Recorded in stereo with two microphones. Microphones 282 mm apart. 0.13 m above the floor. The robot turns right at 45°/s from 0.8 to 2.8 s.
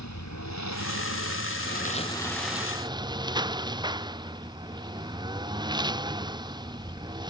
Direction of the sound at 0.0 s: 105° left.